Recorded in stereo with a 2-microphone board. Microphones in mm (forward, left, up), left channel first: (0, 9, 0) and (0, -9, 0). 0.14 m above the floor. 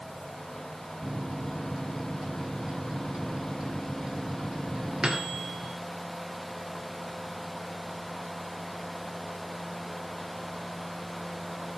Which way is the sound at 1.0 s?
55° right (ahead or behind).